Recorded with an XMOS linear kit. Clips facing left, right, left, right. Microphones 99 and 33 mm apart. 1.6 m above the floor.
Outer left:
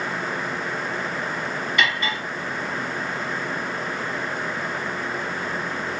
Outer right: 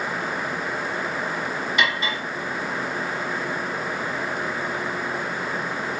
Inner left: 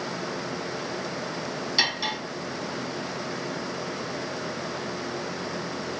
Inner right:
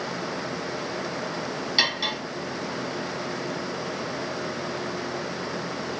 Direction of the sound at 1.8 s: 15° right (ahead or behind).